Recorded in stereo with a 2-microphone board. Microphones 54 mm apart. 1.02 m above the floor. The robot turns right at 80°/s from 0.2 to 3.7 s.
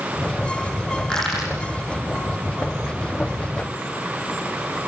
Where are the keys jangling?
I don't hear keys jangling.